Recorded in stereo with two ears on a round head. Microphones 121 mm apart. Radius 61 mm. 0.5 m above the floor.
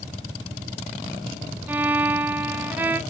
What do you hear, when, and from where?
1.7 s a violin: 15° right (ahead or behind), 0.6 m